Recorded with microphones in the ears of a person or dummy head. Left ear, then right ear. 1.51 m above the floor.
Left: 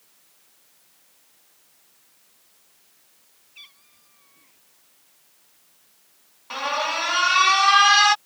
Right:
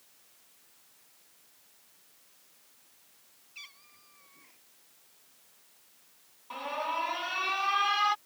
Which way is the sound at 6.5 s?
55° left (ahead or behind).